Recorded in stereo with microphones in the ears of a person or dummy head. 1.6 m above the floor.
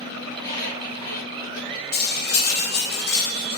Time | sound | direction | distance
0.3 | a squeak | 20° left (ahead or behind) | 1.3 m
1.9 | cutlery clinking | 60° left (ahead or behind) | 1.3 m